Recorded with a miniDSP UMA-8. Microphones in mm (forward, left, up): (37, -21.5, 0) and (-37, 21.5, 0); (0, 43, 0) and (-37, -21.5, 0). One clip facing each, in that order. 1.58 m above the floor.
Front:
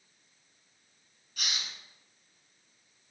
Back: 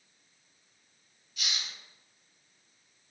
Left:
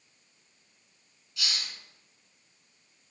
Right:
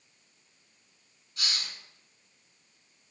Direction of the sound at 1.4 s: 75° right.